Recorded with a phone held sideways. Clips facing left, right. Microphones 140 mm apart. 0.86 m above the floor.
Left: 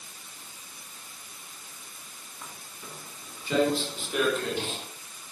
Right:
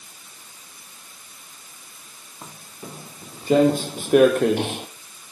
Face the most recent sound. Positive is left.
turn(degrees=-70)  # may be behind; listen again after turning